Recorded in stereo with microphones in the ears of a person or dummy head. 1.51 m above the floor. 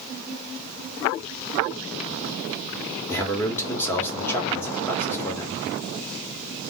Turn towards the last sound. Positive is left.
turn(degrees=15)  # may be behind; listen again after turning